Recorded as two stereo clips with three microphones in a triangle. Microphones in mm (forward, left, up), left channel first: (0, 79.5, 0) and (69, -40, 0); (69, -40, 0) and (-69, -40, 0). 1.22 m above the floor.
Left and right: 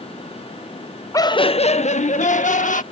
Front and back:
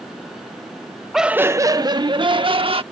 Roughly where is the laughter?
Left.